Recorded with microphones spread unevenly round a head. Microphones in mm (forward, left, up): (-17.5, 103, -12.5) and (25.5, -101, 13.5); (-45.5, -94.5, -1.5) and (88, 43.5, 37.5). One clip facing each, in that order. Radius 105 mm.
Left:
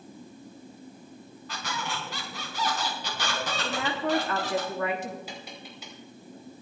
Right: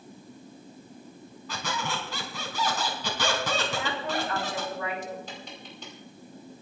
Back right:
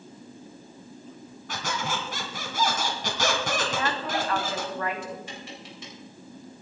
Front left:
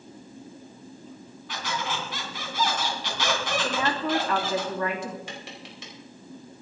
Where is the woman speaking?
65° left, 3 m.